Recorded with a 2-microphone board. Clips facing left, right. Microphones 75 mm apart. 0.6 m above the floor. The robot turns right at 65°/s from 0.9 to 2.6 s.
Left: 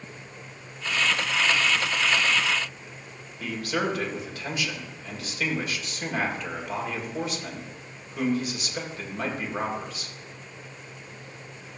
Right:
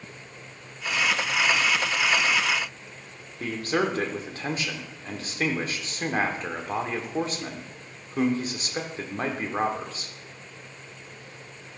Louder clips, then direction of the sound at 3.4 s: Right 2 dB; 40° right (ahead or behind).